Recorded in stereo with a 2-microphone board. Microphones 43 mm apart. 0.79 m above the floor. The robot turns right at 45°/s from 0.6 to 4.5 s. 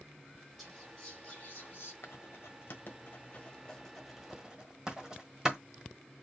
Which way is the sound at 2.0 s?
75° left (ahead or behind).